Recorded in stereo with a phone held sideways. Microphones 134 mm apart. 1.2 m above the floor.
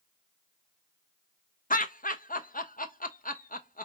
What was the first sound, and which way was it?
Laughter, 85° left.